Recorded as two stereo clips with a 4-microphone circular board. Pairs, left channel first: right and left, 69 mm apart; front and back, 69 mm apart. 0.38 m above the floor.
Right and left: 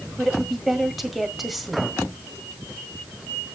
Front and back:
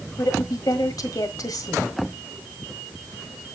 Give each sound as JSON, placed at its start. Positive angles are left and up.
{"t": 0.2, "sound": "a woman speaking", "azimuth_deg": 0, "distance_m": 1.6}